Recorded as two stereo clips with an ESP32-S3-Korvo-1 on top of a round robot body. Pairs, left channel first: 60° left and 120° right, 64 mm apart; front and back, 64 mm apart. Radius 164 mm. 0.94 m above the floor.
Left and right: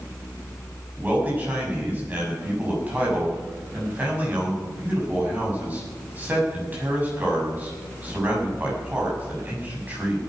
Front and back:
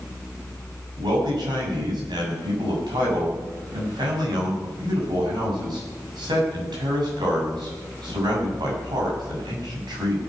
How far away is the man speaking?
About 7 m.